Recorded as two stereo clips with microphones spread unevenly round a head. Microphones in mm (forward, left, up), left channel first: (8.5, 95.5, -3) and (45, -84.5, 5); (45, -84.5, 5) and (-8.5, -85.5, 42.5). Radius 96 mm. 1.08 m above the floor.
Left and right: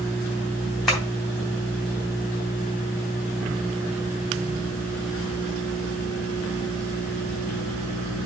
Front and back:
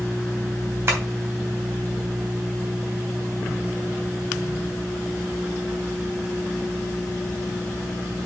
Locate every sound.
0.9 s tapping: 170° right, 3 m